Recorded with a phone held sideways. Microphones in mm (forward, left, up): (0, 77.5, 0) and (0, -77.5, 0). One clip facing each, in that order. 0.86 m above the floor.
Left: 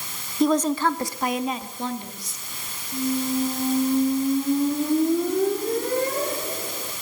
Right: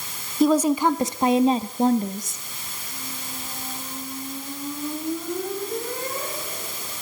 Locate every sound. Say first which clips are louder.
0.4 s a woman speaking: right 2 dB; 5° right (ahead or behind), 1.6 m; by 2.4 s 50° right (ahead or behind), 2 m
2.9 s a squeak: left 17 dB; 55° left (ahead or behind), 5.5 m